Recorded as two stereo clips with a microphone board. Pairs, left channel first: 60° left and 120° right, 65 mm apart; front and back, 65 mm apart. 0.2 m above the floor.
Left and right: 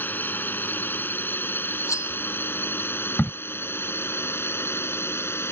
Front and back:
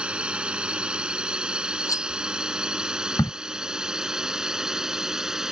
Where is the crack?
5° right.